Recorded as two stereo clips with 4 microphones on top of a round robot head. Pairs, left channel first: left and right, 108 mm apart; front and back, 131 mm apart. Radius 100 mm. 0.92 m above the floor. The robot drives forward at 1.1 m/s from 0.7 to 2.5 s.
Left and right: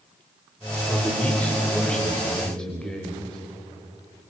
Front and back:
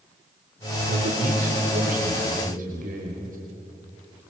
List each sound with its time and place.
0.9 s a man speaking: 170° left, 4 m